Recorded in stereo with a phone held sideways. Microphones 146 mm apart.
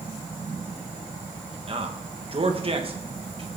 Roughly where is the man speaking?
Right.